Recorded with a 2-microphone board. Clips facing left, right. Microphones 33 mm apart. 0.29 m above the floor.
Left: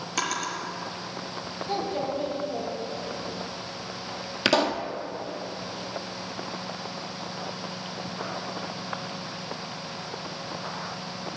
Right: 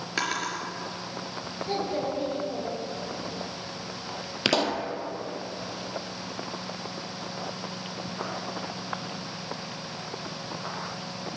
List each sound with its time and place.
0.2 s a drawer: 25° right (ahead or behind), 3.5 m
1.7 s a child speaking: 30° right (ahead or behind), 5 m
4.5 s a pop: centre (ahead or behind), 1.3 m